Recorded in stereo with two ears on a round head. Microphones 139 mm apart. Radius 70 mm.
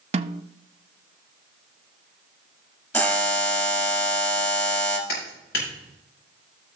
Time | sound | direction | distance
0.1 | a snare drum | 35° right (ahead or behind) | 0.6 m
2.9 | a buzzer | 15° left (ahead or behind) | 2 m
5.1 | a clap | 80° left | 6 m